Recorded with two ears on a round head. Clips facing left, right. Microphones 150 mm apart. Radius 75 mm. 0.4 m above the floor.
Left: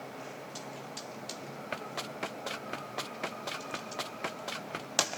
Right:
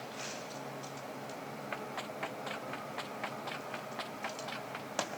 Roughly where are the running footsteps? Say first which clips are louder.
Left 3 dB; left.